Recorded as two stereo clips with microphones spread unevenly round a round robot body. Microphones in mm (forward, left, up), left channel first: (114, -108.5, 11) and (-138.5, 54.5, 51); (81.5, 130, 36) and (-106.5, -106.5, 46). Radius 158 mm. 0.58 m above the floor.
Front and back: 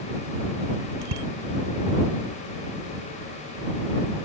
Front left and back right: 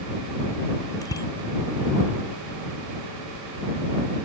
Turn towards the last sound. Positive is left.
turn(degrees=130)